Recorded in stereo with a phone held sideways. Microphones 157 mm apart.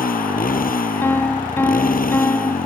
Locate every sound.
0.0 s a motorcycle: 70° left (ahead or behind)
1.0 s a piano: 15° left (ahead or behind)